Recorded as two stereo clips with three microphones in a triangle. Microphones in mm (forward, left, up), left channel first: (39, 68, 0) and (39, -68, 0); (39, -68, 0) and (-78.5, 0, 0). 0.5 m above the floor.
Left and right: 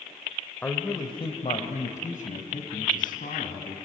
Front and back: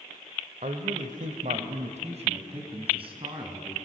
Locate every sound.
0.6 s a man speaking: 165° left, 1.7 m; by 3.8 s 95° left, 5 m